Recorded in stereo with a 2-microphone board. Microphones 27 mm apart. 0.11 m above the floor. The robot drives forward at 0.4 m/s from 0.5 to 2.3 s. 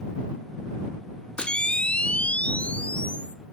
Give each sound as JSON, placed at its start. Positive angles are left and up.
{"t": 1.4, "sound": "a camera shutter", "side_deg": 35, "distance_m": 0.7}